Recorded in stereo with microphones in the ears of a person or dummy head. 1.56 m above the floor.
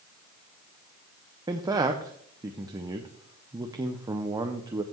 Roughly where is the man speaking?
Centre.